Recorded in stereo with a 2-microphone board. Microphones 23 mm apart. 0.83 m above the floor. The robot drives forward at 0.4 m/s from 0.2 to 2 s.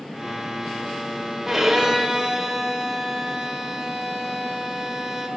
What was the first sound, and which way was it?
A violin, 5° right (ahead or behind).